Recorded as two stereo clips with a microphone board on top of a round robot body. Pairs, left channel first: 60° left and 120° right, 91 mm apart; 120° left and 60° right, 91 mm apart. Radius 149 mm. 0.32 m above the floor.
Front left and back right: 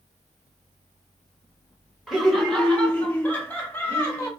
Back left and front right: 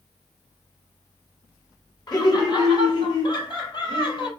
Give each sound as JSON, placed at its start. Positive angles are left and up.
{"t": 2.1, "sound": "laughter", "azimuth_deg": 150, "distance_m": 2.0}